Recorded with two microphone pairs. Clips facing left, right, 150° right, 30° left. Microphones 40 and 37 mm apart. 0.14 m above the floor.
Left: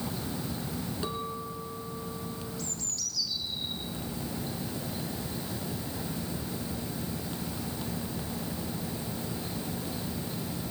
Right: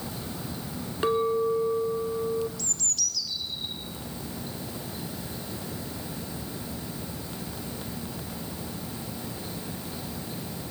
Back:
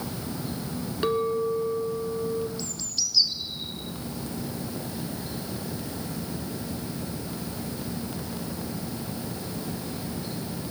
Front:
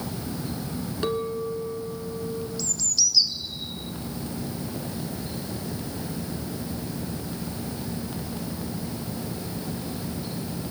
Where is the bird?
95° right, 1.6 m.